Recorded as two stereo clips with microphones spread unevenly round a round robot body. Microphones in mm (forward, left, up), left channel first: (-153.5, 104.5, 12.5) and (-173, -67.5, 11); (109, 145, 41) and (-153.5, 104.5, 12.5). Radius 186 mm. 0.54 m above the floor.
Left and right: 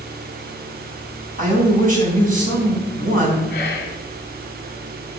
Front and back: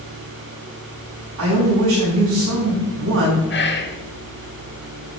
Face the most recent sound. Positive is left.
turn(degrees=60)